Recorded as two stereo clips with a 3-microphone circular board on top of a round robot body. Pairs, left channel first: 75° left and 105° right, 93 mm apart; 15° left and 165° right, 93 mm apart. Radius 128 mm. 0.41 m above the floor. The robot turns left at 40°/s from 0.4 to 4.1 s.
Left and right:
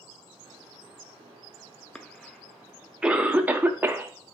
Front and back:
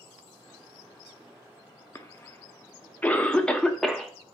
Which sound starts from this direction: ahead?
A cough, at 1.9 s.